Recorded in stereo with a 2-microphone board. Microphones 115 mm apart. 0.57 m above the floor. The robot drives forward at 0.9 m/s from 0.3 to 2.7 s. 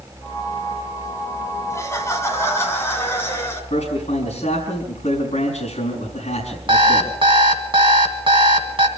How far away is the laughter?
About 4 m.